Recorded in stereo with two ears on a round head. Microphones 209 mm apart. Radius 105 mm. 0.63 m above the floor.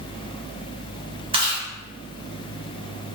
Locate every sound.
1.3 s chewing: 25° right (ahead or behind), 1.0 m